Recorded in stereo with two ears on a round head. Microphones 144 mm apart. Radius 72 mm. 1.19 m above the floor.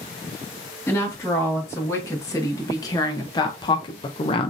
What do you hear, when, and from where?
0.9 s a woman speaking: 15° left (ahead or behind), 2 m; by 4.5 s 30° left (ahead or behind), 0.6 m